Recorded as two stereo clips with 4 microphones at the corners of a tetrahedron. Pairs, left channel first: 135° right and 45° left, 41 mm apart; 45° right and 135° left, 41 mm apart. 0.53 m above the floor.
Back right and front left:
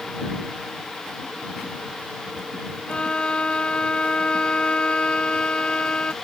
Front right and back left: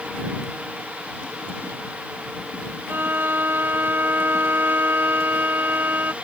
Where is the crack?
I don't hear a crack.